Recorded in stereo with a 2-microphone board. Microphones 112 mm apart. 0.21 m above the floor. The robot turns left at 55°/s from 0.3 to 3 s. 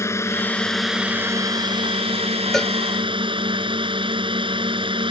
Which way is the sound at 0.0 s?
30° left.